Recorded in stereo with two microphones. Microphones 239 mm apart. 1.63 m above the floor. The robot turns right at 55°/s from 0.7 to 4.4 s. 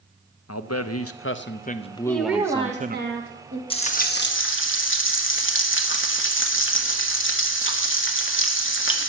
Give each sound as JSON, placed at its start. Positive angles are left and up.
{"t": 0.5, "sound": "a man speaking", "azimuth_deg": 95, "distance_m": 0.7}
{"t": 2.1, "sound": "a woman speaking", "azimuth_deg": 170, "distance_m": 2.0}
{"t": 3.7, "sound": "frying", "azimuth_deg": 25, "distance_m": 1.2}